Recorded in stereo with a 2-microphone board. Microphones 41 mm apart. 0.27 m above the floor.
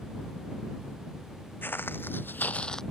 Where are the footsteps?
60° left (ahead or behind); by 2.8 s 15° left (ahead or behind).